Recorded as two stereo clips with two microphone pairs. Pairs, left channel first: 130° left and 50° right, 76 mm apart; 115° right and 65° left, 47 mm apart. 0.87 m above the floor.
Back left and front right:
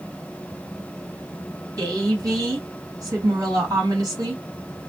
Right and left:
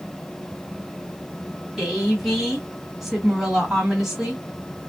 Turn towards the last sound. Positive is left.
turn(degrees=-20)